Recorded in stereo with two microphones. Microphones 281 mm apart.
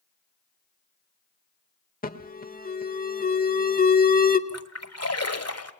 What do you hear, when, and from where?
2.0 s an alarm: 30° left (ahead or behind), 1.3 m
4.5 s a splash: 60° left (ahead or behind), 1.5 m